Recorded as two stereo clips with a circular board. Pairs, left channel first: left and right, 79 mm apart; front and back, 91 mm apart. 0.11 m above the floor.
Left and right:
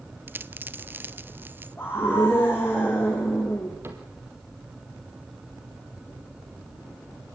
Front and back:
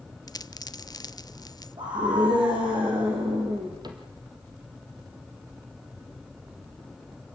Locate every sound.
0.3 s a dropped coin: 30° right, 0.7 m
1.8 s a scream: 150° left, 6 m
3.8 s a cupboard door: 145° right, 3.5 m